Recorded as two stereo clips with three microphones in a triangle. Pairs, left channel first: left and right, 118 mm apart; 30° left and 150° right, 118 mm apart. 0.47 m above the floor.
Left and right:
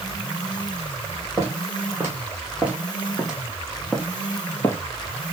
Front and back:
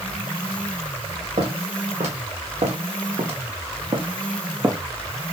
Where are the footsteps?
160° right, 2 m; by 4.8 s 155° left, 1.0 m.